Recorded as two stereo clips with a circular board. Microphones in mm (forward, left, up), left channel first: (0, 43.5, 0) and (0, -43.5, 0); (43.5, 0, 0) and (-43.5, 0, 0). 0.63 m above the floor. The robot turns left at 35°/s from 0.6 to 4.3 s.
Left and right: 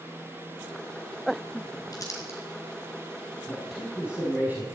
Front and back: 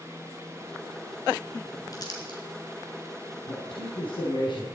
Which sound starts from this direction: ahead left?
Crumpling, at 1.9 s.